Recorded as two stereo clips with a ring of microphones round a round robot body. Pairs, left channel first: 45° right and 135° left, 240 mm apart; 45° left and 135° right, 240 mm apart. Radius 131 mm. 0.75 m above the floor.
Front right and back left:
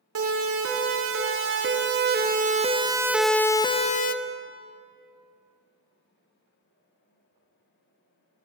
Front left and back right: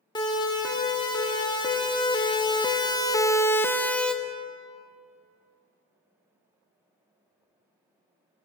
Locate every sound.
0.1 s a siren: 120° left, 4 m; by 4.2 s 40° right, 1.7 m